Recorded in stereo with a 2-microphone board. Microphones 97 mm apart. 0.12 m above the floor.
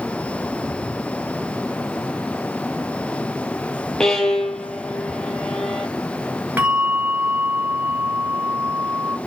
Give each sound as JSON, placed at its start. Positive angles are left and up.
{"t": 4.0, "sound": "a violin", "side_deg": 5, "distance_m": 0.8}
{"t": 6.6, "sound": "a bell", "side_deg": -15, "distance_m": 1.7}